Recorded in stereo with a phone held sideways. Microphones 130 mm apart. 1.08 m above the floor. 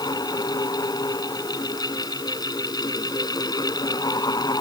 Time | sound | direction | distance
0.0 | a fan | 30° left (ahead or behind) | ?